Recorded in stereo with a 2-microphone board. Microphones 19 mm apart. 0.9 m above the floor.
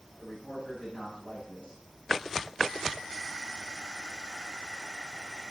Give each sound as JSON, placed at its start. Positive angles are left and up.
{"t": 0.2, "sound": "a man speaking", "side_deg": 25, "distance_m": 7.0}